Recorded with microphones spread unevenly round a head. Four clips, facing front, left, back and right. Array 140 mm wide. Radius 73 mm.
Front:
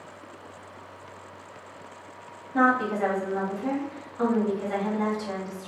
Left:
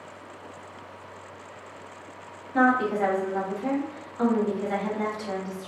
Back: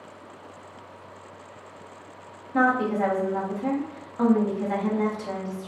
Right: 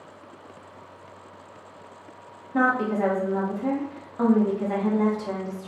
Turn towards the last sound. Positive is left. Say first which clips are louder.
# left 1 dB, back 1 dB
turn(degrees=-130)